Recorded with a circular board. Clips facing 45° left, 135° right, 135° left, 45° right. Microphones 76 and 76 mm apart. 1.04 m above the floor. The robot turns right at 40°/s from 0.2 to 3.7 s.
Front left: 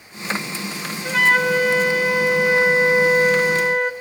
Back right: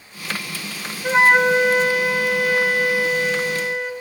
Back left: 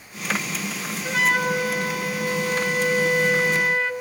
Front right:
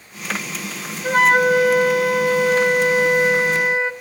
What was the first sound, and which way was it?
A flute, 85° right.